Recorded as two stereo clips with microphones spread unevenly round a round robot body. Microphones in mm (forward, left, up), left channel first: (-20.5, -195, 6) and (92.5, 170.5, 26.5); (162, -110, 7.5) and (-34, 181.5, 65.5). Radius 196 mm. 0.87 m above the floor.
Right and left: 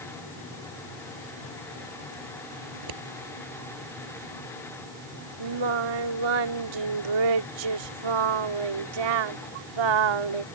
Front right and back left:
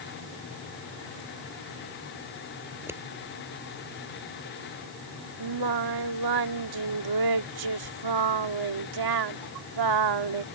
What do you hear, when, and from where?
2.7 s scissors: 40° left
5.4 s singing: 100° left